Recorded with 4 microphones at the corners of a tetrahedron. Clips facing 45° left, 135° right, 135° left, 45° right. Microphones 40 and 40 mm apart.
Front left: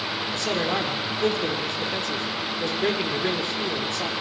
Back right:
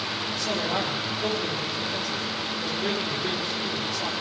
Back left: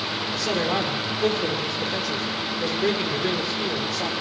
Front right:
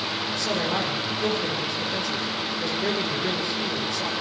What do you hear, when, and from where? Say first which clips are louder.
0.3 s a man speaking: front left 2 dB, back left 2 dB; 55° left, 5.5 m